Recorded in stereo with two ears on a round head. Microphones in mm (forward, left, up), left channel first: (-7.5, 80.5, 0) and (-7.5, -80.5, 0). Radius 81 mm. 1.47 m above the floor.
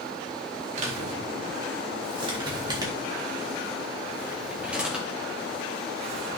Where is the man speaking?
40° right (ahead or behind), 4 m; by 6.4 s 5° left (ahead or behind), 4 m.